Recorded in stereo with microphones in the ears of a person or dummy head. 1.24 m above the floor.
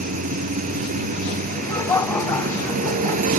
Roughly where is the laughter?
Centre.